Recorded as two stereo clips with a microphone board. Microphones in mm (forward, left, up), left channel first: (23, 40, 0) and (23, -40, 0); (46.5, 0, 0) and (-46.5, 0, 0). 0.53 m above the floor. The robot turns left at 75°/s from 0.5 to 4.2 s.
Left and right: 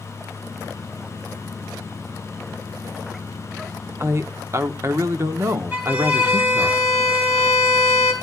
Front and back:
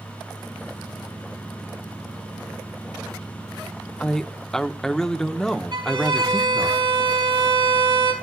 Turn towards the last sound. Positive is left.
turn(degrees=-160)